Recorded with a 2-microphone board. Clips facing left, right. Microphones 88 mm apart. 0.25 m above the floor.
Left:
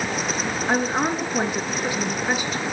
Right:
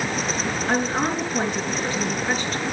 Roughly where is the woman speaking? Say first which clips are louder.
Left 1 dB; centre.